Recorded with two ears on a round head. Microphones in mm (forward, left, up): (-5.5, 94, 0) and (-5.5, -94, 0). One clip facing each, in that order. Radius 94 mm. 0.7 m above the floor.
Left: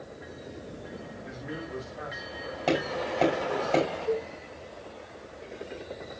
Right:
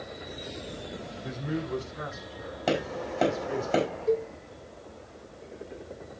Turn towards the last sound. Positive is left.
turn(degrees=-35)  # may be behind; listen again after turning